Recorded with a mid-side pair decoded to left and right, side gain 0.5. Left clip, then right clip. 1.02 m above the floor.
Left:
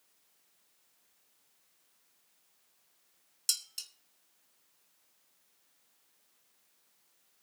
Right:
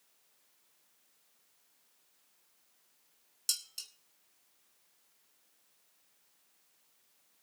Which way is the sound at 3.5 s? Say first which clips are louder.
Left 2 dB; 20° left.